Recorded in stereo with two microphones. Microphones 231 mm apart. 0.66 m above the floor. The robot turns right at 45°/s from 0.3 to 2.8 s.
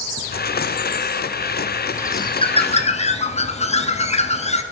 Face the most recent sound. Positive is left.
turn(degrees=65)